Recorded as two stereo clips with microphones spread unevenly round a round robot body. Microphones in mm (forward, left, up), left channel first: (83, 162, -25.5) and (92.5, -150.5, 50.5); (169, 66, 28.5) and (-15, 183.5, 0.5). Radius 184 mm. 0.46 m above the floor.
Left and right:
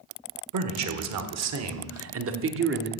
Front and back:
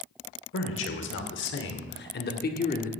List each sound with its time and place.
0.5 s a man speaking: 55° right, 2 m; by 2.9 s 40° right, 1.4 m